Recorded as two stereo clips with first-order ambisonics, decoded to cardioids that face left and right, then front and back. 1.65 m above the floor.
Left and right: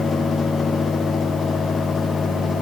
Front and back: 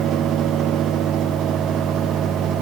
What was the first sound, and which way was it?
Only background noise.